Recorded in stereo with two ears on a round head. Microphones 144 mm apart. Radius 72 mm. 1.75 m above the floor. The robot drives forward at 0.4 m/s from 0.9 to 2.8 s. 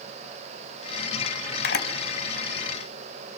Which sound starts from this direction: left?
A camera shutter, at 1.6 s.